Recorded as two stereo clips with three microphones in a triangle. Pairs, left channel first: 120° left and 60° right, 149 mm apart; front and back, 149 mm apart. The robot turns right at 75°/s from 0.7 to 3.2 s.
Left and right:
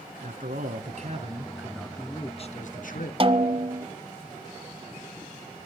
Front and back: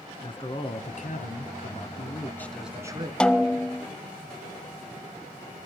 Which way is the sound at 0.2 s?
50° right.